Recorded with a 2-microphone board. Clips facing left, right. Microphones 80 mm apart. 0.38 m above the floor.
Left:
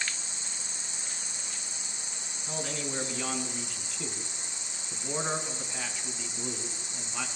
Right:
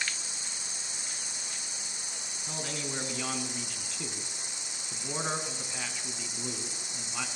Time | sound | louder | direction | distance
0.0 | an insect | even | 5° right (ahead or behind) | 5.5 m
2.5 | a man speaking | left 2 dB | centre (ahead or behind) | 3.5 m